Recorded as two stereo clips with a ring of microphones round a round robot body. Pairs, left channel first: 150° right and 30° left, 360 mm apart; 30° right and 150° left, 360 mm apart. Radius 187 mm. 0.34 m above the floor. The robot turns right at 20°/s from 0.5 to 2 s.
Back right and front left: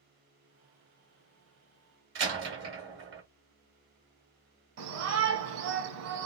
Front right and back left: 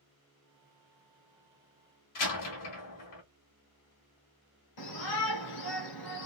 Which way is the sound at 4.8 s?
10° right.